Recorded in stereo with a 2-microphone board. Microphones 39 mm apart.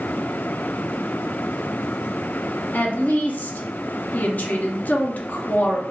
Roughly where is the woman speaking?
Left.